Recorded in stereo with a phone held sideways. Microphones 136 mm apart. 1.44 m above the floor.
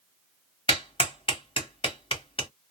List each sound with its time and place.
0.7 s a clap: 40° left (ahead or behind), 1.3 m